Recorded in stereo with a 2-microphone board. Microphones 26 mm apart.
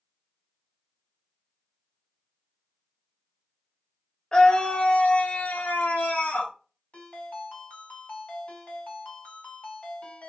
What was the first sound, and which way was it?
A scream, 30° left (ahead or behind).